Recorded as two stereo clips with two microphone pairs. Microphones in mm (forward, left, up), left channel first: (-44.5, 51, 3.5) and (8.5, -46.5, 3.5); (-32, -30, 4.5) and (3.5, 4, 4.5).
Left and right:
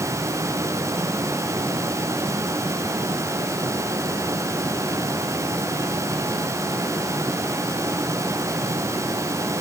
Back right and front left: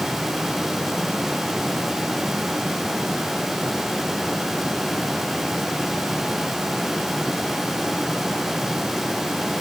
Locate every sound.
Only background noise.